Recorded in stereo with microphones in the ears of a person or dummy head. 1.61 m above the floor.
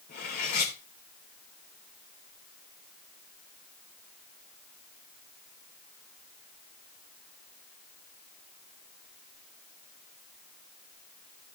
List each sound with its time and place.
0.1 s cutlery clinking: 60° left (ahead or behind), 4 m